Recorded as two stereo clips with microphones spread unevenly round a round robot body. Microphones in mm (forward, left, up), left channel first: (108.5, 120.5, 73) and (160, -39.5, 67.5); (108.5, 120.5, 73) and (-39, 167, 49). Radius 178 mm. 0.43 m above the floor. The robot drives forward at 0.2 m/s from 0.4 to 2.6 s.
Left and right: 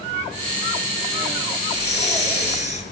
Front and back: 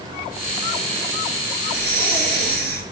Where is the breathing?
165° left, 5.5 m; by 2.8 s 170° left, 6 m.